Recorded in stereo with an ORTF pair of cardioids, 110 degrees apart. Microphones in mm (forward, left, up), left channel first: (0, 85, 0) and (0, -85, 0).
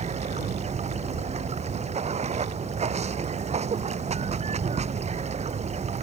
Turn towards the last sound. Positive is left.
turn(degrees=-40)